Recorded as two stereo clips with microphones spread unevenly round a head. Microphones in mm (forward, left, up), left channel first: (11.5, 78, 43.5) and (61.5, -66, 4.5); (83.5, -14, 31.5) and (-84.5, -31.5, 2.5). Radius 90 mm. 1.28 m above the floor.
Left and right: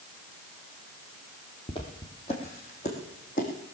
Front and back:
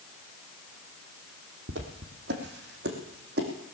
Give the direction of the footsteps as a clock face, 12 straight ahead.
7 o'clock.